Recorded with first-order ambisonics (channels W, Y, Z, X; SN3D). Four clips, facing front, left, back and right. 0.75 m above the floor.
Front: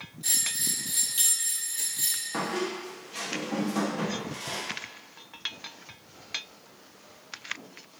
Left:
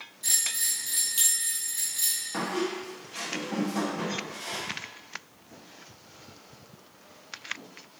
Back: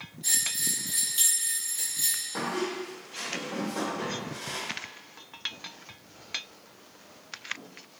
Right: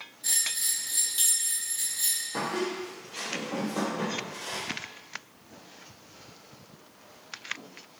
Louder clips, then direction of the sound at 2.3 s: Left 1 dB, front 2 dB; 30° left.